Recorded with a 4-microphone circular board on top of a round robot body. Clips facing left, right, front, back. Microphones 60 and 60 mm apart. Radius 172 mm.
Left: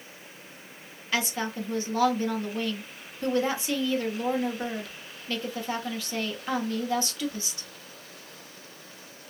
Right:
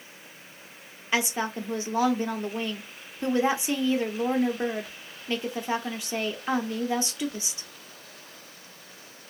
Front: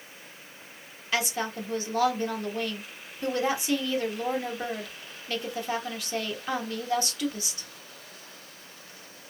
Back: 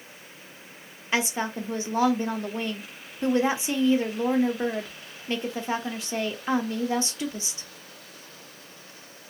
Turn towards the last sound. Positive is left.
turn(degrees=-140)